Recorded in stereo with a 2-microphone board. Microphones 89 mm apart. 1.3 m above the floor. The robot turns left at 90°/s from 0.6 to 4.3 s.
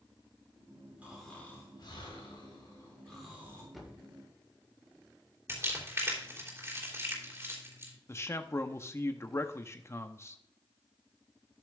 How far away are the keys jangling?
I don't hear keys jangling.